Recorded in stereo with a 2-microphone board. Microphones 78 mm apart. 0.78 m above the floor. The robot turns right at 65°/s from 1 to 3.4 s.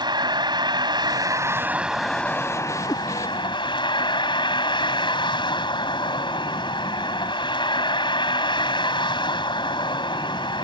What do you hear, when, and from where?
0.0 s a vehicle: 65° right; by 10.6 s 90° left
2.9 s a cat meowing: 45° left (ahead or behind); by 3.0 s 55° left (ahead or behind)